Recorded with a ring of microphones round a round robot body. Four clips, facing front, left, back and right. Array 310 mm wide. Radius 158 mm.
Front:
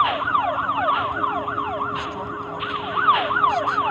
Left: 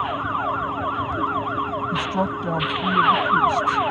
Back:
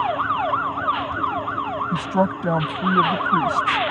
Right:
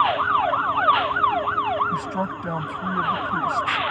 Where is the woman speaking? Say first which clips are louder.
Left 3 dB, back 7 dB; 165° left.